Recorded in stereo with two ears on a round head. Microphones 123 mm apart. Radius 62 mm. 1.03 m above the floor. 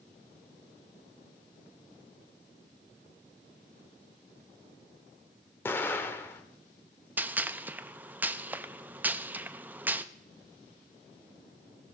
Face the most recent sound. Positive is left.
turn(degrees=-10)  # may be behind; listen again after turning